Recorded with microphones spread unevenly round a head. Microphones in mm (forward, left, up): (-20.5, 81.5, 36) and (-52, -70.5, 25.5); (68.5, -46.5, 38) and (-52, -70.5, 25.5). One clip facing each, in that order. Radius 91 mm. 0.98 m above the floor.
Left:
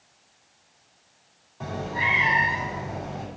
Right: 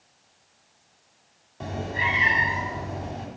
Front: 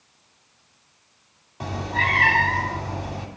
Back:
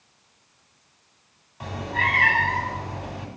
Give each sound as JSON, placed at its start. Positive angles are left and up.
{"t": 1.6, "sound": "a cat meowing", "azimuth_deg": -40, "distance_m": 2.0}